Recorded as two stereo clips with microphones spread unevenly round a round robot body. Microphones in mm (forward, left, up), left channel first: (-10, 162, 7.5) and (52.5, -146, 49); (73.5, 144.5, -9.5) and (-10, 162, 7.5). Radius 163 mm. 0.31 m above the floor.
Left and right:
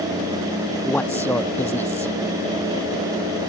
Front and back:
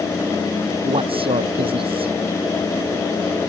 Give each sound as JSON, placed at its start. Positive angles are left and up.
{"t": 0.8, "sound": "a man speaking", "azimuth_deg": -175}